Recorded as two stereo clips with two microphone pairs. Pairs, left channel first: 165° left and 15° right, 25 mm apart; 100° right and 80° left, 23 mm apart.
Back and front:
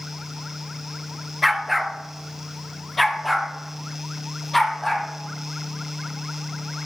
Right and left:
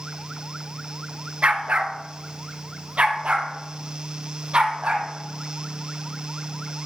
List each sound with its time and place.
1.4 s a dog barking: 75° left, 1.3 m; by 5.1 s 85° left, 3 m